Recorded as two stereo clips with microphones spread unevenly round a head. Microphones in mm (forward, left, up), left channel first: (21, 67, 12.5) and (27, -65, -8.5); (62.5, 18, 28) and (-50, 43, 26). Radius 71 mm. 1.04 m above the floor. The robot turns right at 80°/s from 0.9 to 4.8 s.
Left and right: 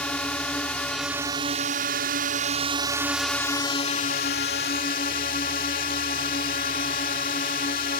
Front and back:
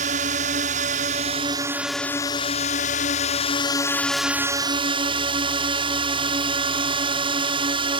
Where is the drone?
175° left; by 8.0 s 125° left.